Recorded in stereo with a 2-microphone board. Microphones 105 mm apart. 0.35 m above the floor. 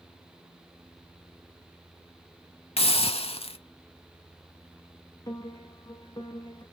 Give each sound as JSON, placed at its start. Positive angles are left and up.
{"t": 2.8, "sound": "a hiss", "side_deg": 65, "distance_m": 0.5}
{"t": 5.3, "sound": "a piano", "side_deg": 40, "distance_m": 1.1}